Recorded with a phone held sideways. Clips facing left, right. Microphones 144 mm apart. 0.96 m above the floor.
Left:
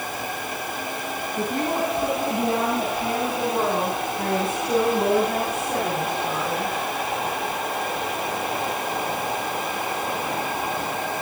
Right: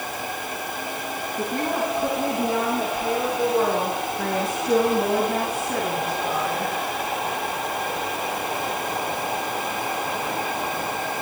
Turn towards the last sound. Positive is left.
turn(degrees=55)  # may be behind; listen again after turning